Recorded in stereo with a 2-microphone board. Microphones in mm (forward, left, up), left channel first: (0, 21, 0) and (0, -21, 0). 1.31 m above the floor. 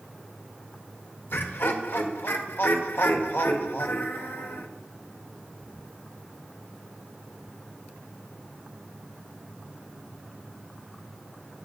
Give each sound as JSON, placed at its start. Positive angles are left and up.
{"t": 1.3, "sound": "laughter", "side_deg": 65, "distance_m": 1.6}